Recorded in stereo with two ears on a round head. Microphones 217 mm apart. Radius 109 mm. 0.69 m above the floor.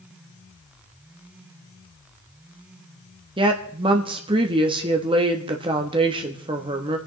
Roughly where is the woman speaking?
Right.